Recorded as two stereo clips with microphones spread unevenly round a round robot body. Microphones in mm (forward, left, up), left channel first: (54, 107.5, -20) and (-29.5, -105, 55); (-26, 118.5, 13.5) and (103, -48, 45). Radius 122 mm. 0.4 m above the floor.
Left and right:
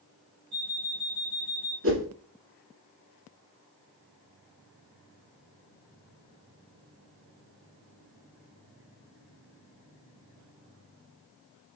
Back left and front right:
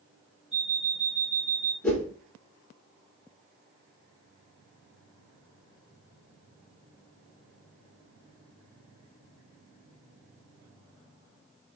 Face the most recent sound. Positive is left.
turn(degrees=-145)